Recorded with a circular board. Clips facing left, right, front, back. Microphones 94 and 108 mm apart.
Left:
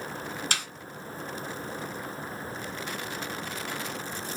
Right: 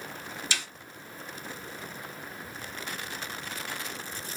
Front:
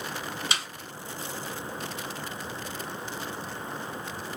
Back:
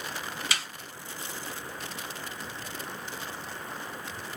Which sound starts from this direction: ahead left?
A snare drum, at 0.5 s.